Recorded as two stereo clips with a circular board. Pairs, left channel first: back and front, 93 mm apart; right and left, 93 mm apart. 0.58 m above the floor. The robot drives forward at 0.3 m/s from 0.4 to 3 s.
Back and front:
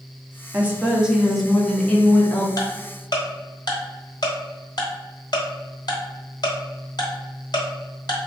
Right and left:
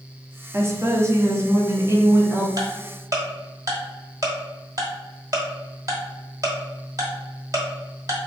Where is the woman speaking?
60° left, 0.8 m; by 2.5 s 130° left, 0.8 m.